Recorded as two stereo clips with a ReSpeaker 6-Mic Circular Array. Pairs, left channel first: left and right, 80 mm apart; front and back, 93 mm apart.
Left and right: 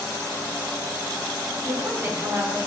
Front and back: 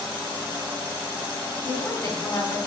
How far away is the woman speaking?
About 2.5 m.